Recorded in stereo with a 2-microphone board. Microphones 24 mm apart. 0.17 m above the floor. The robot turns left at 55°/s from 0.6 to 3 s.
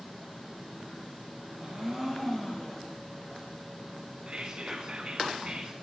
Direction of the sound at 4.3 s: 40° right (ahead or behind).